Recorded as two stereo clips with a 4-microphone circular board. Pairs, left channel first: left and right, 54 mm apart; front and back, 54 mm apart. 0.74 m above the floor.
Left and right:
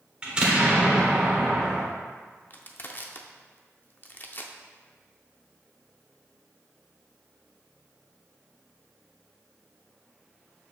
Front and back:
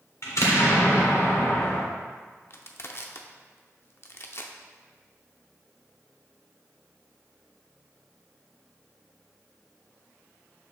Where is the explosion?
20° right, 1.4 m.